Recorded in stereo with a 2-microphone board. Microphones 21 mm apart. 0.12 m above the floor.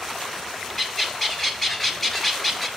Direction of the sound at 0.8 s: 10° left (ahead or behind).